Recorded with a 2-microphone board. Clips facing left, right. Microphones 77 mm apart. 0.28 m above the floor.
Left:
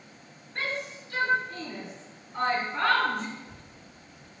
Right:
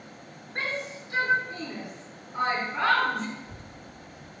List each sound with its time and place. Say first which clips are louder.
0.6 s a shout: right 1 dB; 40° right (ahead or behind), 3 m; by 3.3 s centre (ahead or behind), 2.5 m
3.4 s a child speaking: right 3 dB; 25° right (ahead or behind), 1.2 m